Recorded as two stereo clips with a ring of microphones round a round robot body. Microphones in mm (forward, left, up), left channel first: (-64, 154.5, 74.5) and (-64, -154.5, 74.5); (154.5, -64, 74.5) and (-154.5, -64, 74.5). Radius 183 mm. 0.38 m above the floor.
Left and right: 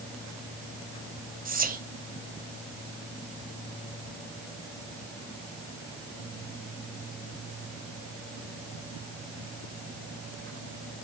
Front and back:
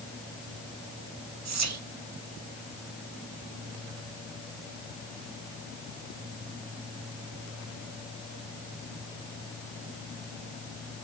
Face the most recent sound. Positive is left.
turn(degrees=-150)